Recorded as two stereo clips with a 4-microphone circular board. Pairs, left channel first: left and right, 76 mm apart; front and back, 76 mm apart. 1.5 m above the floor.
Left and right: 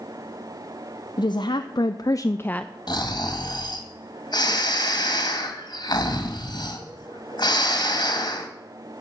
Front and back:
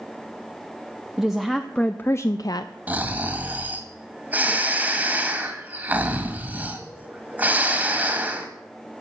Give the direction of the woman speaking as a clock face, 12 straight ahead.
9 o'clock.